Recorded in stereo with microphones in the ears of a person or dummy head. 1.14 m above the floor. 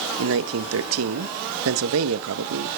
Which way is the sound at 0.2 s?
75° right (ahead or behind).